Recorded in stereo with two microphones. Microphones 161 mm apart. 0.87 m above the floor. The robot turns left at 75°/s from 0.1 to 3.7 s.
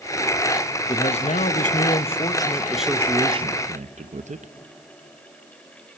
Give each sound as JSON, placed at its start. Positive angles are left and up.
{"t": 0.9, "sound": "a man speaking", "azimuth_deg": 140, "distance_m": 0.8}